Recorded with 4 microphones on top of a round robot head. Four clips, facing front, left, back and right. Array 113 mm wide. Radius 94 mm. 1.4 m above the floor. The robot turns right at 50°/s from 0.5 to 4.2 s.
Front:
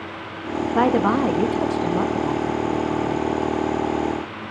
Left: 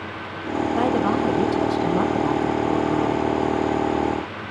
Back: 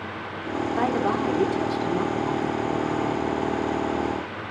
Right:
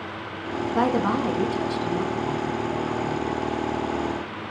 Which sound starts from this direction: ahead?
A woman speaking, at 0.8 s.